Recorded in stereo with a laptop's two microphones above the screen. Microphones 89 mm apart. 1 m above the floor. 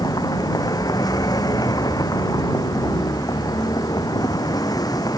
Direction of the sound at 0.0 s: 45° left (ahead or behind).